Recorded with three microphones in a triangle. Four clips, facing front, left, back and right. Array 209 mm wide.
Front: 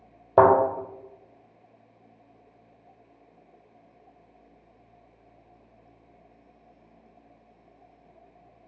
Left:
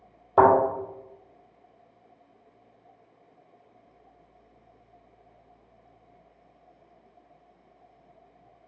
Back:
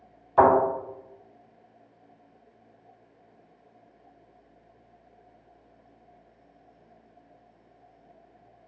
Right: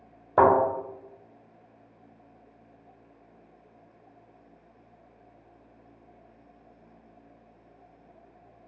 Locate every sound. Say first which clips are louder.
0.4 s a thud: left 2 dB, front 2 dB; 5° right, 1.5 m